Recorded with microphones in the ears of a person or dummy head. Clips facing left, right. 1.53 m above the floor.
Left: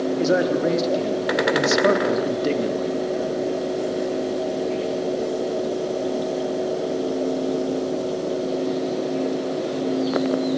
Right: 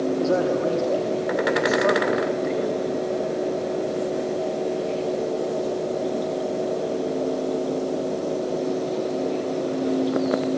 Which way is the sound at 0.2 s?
20° left (ahead or behind).